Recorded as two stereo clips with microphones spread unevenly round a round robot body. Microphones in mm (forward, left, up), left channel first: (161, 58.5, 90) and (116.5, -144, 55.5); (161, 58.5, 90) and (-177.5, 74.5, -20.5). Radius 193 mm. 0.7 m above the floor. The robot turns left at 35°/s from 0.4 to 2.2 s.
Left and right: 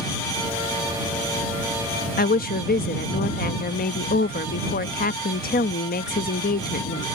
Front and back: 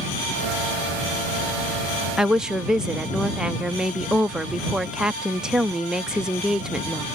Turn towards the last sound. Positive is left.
turn(degrees=110)